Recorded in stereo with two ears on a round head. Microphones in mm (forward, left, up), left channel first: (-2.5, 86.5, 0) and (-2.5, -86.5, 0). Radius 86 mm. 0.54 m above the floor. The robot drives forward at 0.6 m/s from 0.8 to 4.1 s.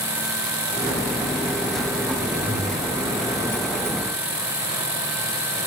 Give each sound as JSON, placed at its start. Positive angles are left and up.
{"t": 2.4, "sound": "breathing", "side_deg": -85, "distance_m": 8.5}